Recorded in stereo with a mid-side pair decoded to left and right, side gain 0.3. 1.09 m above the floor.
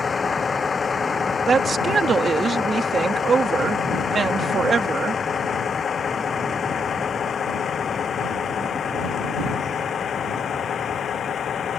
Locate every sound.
0.0 s a vehicle: 45° left; by 11.8 s 70° left
1.5 s a woman speaking: 65° right